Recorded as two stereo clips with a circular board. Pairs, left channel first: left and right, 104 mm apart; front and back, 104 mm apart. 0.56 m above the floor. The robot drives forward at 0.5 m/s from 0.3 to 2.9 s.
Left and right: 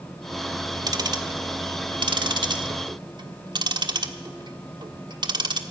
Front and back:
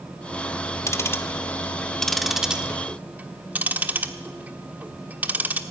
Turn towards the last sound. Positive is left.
turn(degrees=-110)